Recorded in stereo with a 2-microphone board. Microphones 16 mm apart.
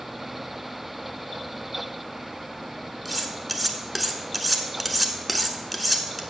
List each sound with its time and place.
3.0 s cutlery clinking: centre (ahead or behind), 0.8 m